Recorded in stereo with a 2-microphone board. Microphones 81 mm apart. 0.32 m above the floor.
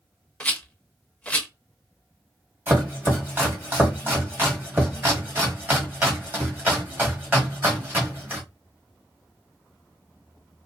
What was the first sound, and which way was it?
A rattle, 20° left (ahead or behind).